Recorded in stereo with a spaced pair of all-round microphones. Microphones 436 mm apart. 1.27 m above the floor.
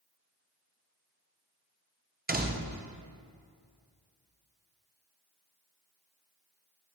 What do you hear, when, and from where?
2.3 s a door slam: 20° right (ahead or behind), 0.6 m